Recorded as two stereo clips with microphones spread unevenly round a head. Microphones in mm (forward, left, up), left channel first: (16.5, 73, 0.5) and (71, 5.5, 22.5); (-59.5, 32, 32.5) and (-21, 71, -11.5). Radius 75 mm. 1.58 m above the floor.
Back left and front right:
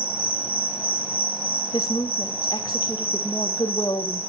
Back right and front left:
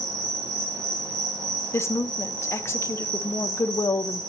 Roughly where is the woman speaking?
Behind.